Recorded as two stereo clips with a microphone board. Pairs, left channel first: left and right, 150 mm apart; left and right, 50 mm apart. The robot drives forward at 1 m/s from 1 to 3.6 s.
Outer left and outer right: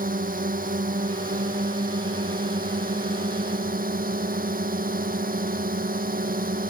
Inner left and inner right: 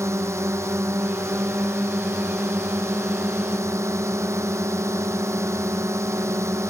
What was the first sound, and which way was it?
A drone, 70° right (ahead or behind).